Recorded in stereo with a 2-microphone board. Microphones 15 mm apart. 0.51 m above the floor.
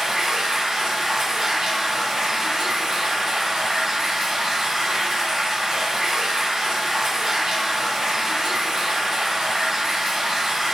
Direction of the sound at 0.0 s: 35° right (ahead or behind).